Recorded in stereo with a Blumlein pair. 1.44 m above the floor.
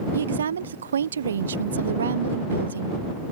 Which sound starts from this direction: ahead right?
A woman speaking, at 0.1 s.